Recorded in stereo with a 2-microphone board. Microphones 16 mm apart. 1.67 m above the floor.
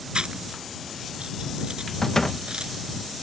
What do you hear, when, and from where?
0.1 s chewing: 65° right (ahead or behind)
2.0 s a door slam: 30° left (ahead or behind)